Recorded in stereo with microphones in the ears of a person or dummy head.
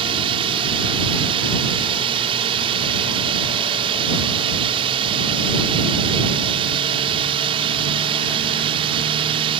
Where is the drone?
30° right (ahead or behind).